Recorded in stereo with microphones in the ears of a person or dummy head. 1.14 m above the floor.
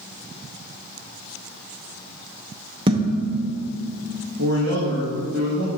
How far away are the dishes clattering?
About 0.8 m.